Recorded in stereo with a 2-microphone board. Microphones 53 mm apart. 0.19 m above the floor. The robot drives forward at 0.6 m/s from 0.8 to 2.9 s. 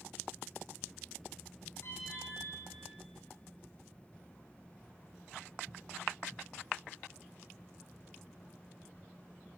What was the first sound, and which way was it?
An alarm, 55° left (ahead or behind).